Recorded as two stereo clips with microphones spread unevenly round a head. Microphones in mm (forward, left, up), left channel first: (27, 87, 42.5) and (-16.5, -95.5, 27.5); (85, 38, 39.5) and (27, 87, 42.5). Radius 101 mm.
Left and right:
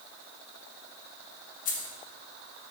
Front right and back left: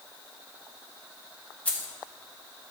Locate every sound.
1.6 s keys jangling: 30° left, 1.5 m